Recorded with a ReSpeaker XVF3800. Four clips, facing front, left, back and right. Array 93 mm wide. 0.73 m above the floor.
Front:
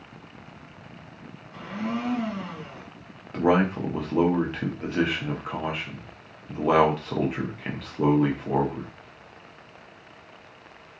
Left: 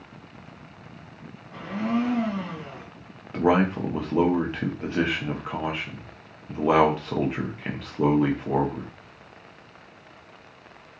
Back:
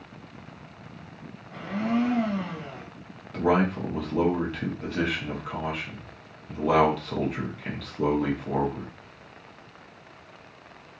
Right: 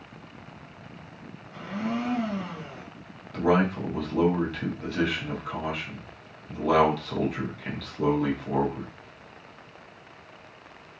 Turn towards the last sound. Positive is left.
turn(degrees=55)